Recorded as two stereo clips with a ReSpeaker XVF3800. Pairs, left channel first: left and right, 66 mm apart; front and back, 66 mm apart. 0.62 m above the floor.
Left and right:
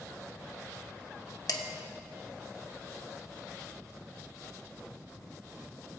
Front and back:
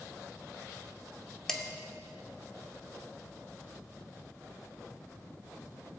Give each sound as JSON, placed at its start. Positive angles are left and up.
{"t": 1.5, "sound": "dishes clattering", "azimuth_deg": 80, "distance_m": 0.9}